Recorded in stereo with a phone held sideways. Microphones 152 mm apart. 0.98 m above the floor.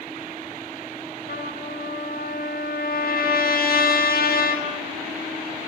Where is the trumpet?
80° left, 5 m.